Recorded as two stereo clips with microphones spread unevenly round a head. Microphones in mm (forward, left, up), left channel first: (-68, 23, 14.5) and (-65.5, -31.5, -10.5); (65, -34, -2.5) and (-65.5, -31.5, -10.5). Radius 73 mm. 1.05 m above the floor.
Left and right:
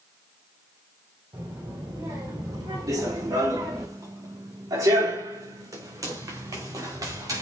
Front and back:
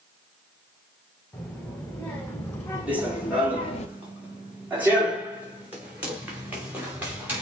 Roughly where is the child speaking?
Right.